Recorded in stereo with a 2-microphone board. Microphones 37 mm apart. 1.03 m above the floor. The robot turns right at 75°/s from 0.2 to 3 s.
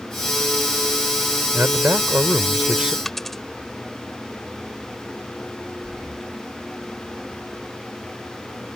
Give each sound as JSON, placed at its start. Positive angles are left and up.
{"t": 1.5, "sound": "a man speaking", "azimuth_deg": -120}
{"t": 3.0, "sound": "a dropped coin", "side_deg": 5}
{"t": 5.8, "sound": "breathing", "side_deg": -75}